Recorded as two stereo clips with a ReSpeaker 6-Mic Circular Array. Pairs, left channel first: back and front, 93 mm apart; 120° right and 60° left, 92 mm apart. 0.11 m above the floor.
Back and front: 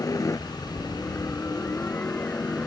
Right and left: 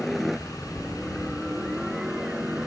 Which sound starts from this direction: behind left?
A helicopter, at 0.0 s.